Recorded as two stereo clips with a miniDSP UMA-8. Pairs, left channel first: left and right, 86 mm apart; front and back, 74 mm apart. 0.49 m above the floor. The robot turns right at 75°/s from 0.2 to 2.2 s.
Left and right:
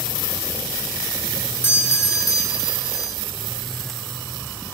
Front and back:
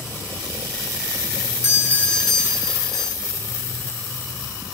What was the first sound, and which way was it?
A doorbell, 40° left.